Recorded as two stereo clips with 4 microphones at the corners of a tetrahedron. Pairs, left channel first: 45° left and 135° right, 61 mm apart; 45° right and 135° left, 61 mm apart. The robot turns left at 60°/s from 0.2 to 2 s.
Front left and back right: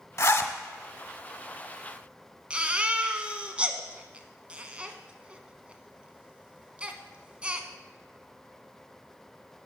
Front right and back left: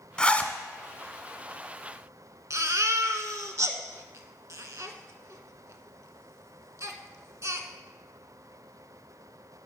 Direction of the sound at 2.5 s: 155° left.